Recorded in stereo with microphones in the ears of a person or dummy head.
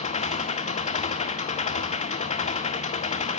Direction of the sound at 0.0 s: 40° left (ahead or behind).